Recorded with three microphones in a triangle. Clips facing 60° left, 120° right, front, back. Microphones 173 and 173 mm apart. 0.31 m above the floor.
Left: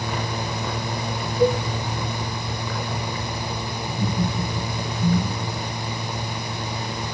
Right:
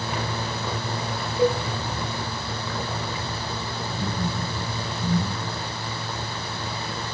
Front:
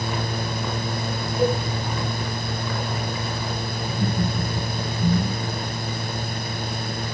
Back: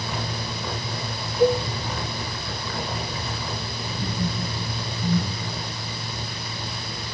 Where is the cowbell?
60° right, 6 m.